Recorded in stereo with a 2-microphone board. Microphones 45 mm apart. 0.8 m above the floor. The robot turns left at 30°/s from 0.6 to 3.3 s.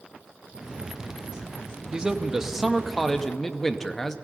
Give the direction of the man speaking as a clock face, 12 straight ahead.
5 o'clock.